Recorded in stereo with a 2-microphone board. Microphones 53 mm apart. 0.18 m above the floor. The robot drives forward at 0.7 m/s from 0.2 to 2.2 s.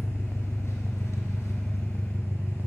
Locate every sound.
0.0 s an engine running: 55° left (ahead or behind), 1.4 m